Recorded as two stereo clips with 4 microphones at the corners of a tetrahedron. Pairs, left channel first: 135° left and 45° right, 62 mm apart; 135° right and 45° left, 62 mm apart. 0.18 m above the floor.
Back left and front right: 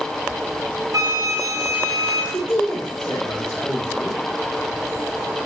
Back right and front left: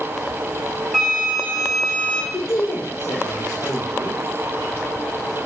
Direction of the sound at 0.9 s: 50° right.